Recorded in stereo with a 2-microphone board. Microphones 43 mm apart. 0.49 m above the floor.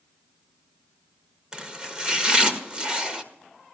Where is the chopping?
20° right (ahead or behind), 1.3 m.